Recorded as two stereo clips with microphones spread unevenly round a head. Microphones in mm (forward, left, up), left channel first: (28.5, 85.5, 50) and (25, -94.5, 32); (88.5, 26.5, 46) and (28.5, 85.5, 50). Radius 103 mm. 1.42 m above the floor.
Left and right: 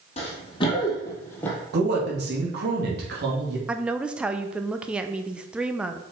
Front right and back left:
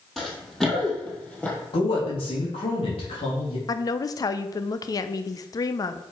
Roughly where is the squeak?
No squeak in this recording.